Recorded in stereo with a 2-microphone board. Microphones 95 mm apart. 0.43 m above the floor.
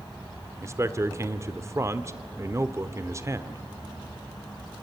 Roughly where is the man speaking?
Right.